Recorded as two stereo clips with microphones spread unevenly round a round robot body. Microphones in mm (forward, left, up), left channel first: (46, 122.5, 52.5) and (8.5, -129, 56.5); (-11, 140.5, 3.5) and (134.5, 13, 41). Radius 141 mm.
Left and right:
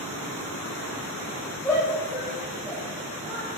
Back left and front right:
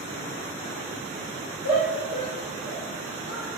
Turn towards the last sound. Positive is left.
turn(degrees=-160)